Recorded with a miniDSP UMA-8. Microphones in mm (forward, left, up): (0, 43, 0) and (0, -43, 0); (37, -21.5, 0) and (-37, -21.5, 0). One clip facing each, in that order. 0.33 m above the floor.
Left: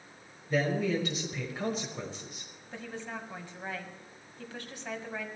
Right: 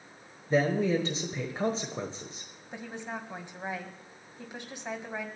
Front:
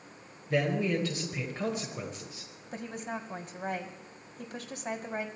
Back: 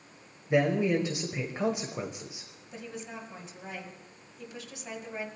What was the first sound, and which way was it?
A man speaking, 125° right.